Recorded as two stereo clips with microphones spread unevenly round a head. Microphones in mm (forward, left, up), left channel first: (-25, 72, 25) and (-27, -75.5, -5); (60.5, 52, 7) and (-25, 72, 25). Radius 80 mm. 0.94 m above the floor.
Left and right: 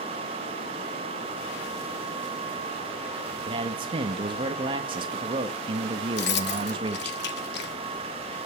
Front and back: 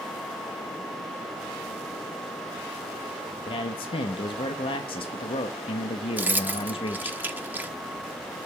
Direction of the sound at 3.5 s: 35° right.